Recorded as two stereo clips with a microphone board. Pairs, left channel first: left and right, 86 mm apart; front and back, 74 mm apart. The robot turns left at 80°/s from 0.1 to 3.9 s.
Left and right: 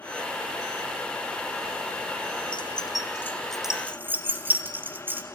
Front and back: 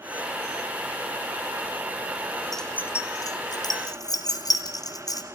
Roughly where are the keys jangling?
Left.